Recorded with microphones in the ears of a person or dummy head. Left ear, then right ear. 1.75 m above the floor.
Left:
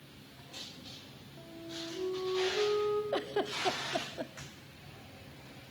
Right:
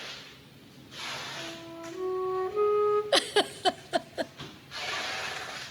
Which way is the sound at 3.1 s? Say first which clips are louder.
Right 8 dB; 75° right (ahead or behind).